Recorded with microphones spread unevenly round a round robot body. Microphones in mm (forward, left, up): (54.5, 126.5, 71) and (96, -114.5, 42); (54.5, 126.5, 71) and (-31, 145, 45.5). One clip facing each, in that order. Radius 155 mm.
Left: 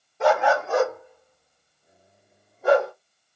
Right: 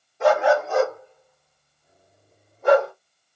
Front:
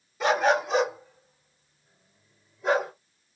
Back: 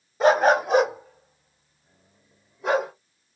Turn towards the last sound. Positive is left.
turn(degrees=-170)